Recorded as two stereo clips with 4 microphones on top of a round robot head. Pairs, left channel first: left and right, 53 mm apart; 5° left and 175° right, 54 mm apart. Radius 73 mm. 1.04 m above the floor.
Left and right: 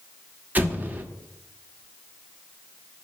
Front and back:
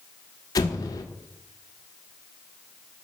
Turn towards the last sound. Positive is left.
turn(degrees=-30)